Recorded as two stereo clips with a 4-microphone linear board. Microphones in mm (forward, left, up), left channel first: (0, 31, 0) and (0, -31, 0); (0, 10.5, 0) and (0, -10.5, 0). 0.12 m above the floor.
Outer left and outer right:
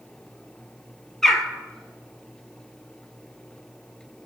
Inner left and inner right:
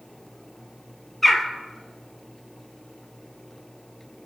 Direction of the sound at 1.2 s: 5° left (ahead or behind).